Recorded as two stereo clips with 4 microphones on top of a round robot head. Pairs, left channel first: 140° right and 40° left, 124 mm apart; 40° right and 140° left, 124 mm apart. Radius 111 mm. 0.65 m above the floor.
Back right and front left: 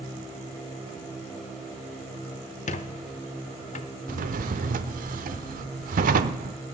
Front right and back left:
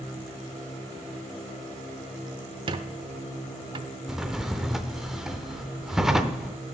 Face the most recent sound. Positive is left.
turn(degrees=50)